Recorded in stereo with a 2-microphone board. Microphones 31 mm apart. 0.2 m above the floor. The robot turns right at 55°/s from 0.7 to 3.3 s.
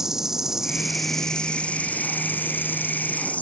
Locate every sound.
0.0 s an insect: 15° right; by 3.4 s 130° left